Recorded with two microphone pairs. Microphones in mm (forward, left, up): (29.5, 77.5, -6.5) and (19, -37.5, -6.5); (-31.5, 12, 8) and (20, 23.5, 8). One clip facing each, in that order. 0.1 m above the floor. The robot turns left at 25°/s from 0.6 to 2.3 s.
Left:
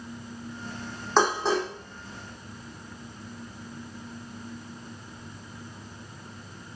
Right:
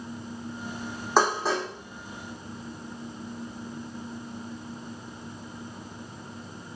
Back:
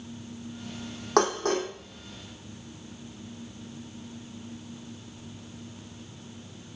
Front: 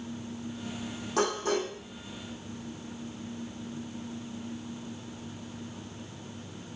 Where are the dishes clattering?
175° right, 3.5 m; by 1.7 s 170° left, 3.5 m.